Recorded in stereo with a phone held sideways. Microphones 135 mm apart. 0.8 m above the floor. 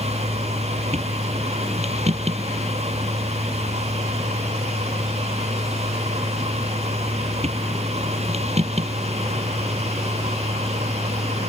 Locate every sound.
0.0 s a machine running: 50° right (ahead or behind)